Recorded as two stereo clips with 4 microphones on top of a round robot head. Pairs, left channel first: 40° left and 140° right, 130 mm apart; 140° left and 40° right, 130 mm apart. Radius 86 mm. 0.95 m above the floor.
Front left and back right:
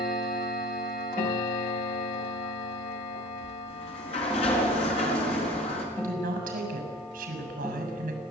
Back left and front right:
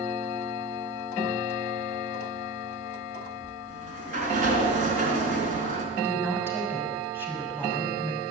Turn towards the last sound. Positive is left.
turn(degrees=-115)